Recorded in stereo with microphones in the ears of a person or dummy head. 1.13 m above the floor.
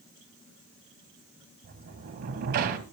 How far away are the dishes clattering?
I don't hear dishes clattering.